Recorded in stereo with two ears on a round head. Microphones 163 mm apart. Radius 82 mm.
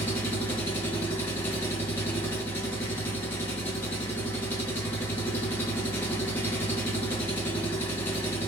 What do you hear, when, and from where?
0.0 s an engine running: 10° left (ahead or behind), 1.1 m